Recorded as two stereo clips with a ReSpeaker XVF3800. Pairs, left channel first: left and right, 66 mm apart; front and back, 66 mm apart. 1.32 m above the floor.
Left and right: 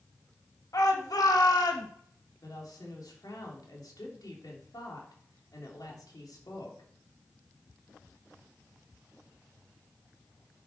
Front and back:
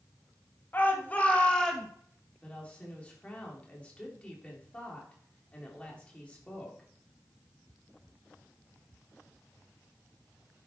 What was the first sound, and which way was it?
A shout, 60° left.